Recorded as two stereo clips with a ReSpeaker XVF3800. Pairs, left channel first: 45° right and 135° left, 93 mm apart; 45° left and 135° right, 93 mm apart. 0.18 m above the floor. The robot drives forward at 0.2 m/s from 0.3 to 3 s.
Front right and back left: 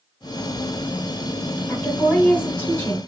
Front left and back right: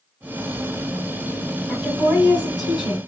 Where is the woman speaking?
50° right, 1.5 m; by 3.1 s 75° right, 1.5 m.